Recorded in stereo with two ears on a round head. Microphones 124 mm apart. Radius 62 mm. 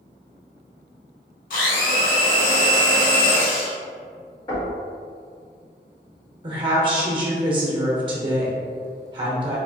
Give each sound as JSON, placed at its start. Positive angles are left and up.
{"t": 1.5, "sound": "a blender", "side_deg": 65, "distance_m": 1.2}
{"t": 4.5, "sound": "knocking", "side_deg": 35, "distance_m": 1.8}
{"t": 6.4, "sound": "a woman speaking", "side_deg": -35, "distance_m": 1.0}